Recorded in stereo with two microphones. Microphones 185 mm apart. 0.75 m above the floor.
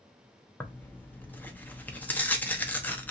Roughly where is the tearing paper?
Centre.